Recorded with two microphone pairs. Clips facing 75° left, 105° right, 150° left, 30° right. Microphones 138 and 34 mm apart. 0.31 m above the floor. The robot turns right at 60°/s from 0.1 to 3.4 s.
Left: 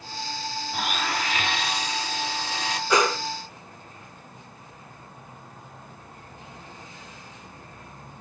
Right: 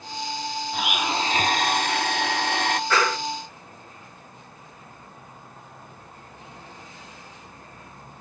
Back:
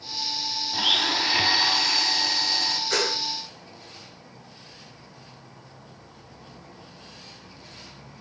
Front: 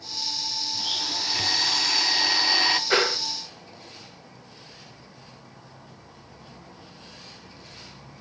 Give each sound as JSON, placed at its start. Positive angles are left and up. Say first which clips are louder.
{"t": 0.7, "sound": "a blender", "louder": "right 2 dB, back 9 dB", "azimuth_deg": 165, "distance_m": 1.0}
{"t": 2.9, "sound": "a whoosh", "louder": "left 4 dB, front 2 dB", "azimuth_deg": 10, "distance_m": 1.8}